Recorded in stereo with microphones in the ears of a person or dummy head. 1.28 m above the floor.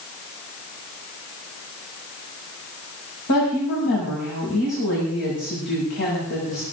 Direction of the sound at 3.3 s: 60° left (ahead or behind).